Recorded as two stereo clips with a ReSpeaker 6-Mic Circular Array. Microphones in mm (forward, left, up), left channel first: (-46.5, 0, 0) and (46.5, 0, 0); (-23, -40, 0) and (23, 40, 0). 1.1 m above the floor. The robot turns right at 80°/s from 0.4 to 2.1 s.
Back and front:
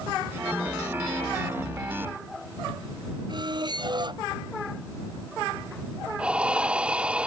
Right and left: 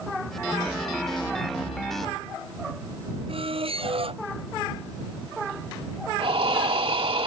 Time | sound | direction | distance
3.3 | a squeak | 40° left | ?
6.2 | breathing | 80° left | ?